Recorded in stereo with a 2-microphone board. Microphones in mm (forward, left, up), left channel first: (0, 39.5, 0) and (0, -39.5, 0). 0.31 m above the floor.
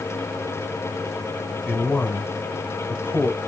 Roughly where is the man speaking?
Left.